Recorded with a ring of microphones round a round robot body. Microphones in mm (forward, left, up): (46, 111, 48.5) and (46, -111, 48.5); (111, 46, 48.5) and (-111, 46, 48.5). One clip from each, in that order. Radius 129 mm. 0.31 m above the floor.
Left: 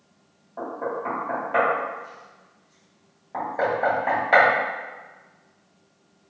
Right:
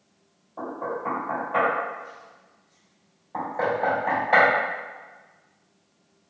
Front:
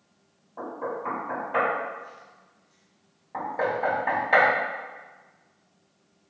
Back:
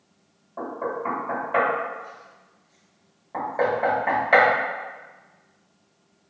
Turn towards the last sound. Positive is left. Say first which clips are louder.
# left 2 dB, back 3 dB
turn(degrees=125)